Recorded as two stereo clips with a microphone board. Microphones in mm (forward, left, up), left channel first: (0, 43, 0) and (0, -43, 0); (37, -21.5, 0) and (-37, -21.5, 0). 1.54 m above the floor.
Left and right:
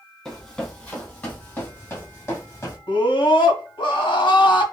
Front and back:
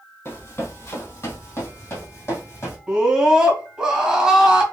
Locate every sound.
0.2 s running footsteps: 20° left, 1.9 m; by 2.8 s 45° left, 2.5 m
2.9 s a scream: 100° left, 2 m